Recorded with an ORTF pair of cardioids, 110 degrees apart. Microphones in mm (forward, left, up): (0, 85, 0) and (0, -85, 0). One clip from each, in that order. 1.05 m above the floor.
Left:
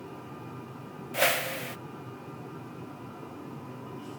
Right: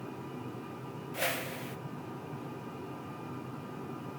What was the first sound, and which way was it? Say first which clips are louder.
A whoosh: left 8 dB; 40° left.